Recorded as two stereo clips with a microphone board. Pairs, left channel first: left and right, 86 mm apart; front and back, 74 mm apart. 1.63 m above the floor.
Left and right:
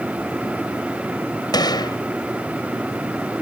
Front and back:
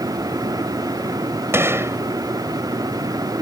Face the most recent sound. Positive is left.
turn(degrees=125)